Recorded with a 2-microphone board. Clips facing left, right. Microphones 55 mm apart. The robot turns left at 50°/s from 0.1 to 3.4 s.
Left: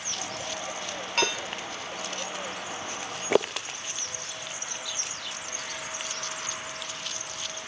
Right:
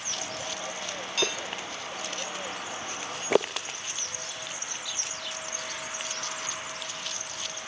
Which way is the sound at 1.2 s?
50° left (ahead or behind).